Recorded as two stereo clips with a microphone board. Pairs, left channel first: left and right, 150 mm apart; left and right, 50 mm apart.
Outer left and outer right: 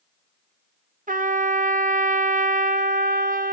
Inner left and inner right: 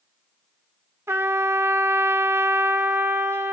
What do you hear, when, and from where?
1.1 s a trumpet: 65° right (ahead or behind), 0.5 m